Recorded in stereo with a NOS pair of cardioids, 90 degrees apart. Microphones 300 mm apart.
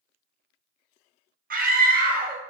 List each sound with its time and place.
1.5 s a scream: 30° right, 0.7 m